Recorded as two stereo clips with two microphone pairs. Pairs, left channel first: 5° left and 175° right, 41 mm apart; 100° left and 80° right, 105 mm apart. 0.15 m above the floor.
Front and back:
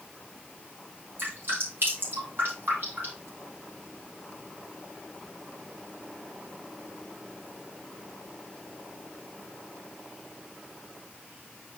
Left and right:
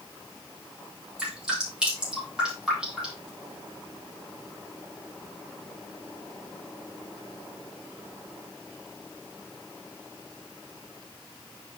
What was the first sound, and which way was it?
Dripping, 160° right.